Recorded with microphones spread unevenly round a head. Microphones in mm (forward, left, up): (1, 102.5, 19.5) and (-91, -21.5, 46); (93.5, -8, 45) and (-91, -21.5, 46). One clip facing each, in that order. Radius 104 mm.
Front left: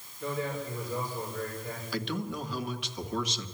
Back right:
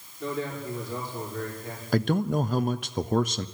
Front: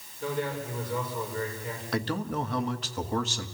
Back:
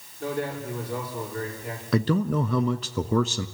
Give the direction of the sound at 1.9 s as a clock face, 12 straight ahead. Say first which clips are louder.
Back right 10 dB, back 7 dB; 6 o'clock.